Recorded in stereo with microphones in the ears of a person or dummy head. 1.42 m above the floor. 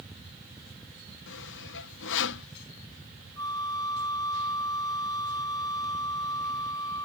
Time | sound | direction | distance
1.3 | sawing | 65° left (ahead or behind) | ?
3.4 | a flute | 25° left (ahead or behind) | ?